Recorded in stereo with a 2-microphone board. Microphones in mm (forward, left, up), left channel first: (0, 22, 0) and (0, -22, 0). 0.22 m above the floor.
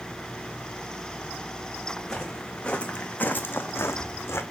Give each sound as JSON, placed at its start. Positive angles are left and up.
{"t": 2.0, "sound": "footsteps", "side_deg": 10, "distance_m": 1.5}